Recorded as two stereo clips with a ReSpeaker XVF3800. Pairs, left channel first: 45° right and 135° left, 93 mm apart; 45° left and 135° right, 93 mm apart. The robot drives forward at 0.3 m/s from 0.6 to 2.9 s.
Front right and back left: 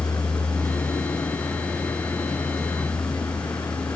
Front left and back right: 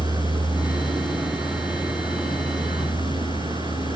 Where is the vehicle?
95° right; by 4.0 s 100° right.